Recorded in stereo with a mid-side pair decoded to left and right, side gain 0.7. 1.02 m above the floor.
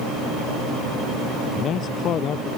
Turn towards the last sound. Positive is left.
turn(degrees=45)